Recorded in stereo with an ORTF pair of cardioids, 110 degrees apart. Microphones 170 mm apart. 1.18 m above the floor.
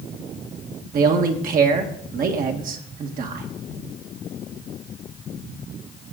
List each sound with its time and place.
0.9 s a man speaking: 60° right, 1.7 m